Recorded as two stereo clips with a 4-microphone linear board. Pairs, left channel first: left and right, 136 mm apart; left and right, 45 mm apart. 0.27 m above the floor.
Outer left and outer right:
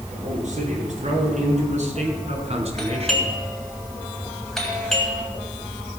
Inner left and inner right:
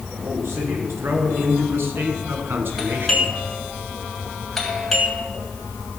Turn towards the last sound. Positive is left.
turn(degrees=0)  # may be behind; listen again after turning